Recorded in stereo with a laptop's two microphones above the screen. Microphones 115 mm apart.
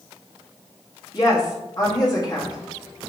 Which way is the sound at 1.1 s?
35° left (ahead or behind).